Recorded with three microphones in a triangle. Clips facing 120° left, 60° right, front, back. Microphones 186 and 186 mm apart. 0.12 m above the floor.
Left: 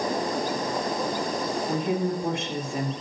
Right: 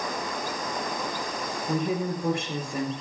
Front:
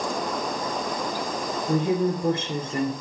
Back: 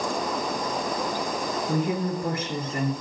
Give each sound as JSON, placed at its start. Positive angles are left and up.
{"t": 1.7, "sound": "a woman speaking", "azimuth_deg": 30, "distance_m": 1.6}